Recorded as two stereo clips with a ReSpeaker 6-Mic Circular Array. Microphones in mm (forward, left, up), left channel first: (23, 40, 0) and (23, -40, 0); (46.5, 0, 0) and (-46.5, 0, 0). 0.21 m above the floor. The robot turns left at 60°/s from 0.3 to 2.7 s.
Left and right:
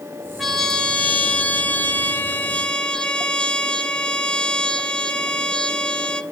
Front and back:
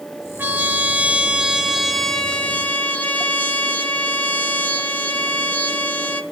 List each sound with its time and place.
0.4 s a trumpet: 175° left, 0.6 m; by 6.2 s 40° left, 0.6 m